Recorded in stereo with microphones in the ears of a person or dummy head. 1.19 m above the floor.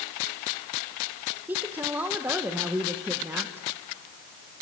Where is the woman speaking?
5° right (ahead or behind), 1.2 m.